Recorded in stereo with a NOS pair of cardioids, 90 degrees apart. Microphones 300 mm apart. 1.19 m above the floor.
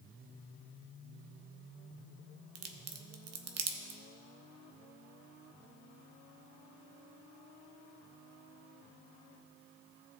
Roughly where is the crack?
Ahead right.